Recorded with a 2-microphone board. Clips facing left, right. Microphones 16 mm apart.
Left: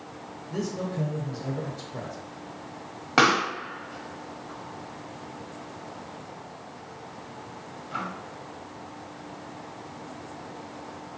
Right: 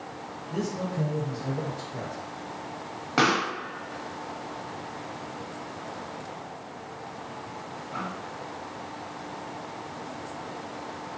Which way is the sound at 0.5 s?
20° left (ahead or behind).